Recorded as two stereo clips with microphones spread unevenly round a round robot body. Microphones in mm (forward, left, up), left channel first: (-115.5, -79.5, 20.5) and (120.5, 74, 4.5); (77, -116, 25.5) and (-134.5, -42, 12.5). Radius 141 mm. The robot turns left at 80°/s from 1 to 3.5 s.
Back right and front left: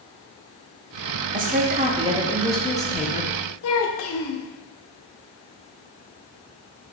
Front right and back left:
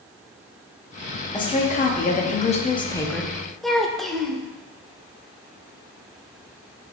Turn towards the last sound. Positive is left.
turn(degrees=-110)